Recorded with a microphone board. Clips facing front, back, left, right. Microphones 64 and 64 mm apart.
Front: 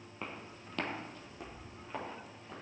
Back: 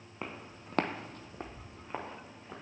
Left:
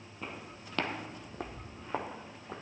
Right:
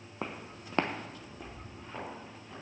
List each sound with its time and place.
0.2 s footsteps: 105° right, 1.2 m; by 2.5 s 110° left, 2.5 m